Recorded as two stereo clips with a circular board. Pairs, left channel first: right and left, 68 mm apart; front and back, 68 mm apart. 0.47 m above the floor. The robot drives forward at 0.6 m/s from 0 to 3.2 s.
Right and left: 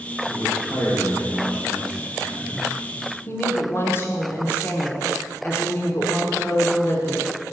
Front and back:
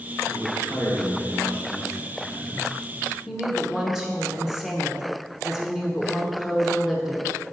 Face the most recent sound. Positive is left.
turn(degrees=-100)